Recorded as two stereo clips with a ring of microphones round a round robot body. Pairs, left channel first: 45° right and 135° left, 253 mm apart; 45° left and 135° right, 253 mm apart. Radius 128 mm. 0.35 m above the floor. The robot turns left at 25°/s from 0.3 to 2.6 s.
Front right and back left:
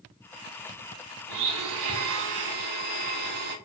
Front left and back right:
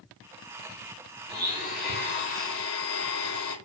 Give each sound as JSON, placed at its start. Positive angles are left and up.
{"t": 1.3, "sound": "a blender", "azimuth_deg": 115, "distance_m": 0.6}